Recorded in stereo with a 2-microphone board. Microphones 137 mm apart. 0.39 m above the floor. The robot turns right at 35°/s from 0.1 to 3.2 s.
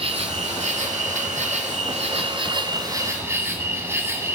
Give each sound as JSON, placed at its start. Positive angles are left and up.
{"t": 0.0, "sound": "an insect", "azimuth_deg": -130, "distance_m": 2.0}